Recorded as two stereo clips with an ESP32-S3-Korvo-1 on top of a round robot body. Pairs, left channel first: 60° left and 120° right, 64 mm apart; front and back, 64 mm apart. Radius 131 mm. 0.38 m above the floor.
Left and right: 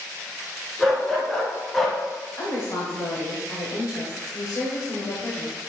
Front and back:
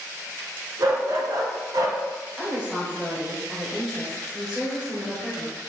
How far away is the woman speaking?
About 2.0 m.